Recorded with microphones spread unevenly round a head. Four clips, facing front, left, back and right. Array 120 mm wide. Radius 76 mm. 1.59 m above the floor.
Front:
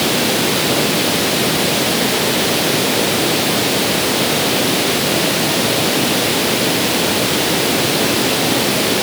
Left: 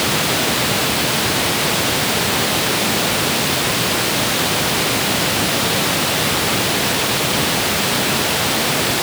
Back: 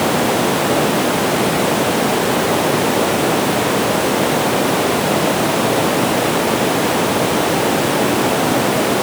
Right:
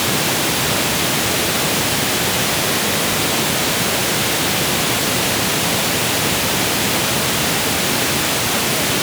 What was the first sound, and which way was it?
Only background noise.